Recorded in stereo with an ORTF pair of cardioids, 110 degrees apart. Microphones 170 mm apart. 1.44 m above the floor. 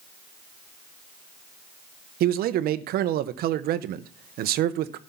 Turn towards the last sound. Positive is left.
turn(degrees=-70)